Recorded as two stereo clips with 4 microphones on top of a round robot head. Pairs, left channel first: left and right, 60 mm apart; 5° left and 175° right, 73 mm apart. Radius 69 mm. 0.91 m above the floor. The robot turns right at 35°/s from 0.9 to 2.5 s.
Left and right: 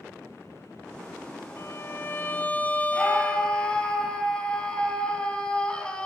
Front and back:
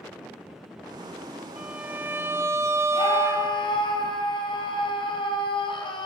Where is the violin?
110° left, 1.3 m; by 3.9 s 145° left, 1.3 m.